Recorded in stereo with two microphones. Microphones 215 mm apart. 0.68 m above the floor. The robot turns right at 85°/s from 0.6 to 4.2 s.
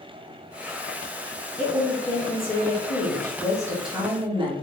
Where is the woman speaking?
10° right, 1.8 m; by 4.5 s 150° right, 1.8 m.